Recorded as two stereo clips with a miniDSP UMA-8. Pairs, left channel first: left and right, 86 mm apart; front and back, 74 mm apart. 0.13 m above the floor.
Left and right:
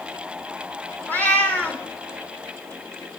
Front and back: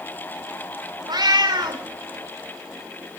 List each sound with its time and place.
1.1 s a cat meowing: 160° left, 1.5 m